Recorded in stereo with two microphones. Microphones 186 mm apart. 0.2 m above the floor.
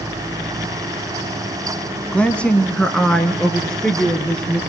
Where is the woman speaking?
5° left (ahead or behind), 1.2 m.